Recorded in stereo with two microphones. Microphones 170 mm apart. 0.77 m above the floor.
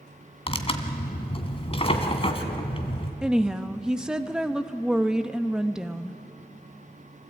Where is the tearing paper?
35° left (ahead or behind), 1.8 m.